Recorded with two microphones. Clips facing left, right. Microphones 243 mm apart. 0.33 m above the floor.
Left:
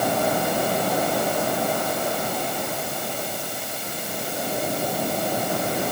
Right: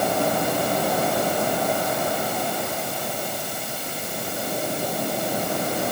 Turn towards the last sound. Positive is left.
No sound to turn to.